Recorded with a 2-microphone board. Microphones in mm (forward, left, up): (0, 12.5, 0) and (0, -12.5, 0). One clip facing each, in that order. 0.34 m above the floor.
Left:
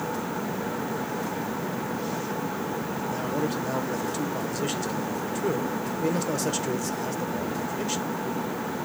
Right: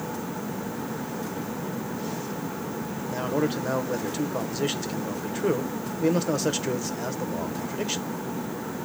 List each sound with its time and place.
3.1 s a man speaking: 15° right (ahead or behind), 0.8 m